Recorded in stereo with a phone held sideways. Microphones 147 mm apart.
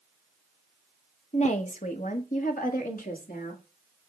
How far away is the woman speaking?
About 1.2 m.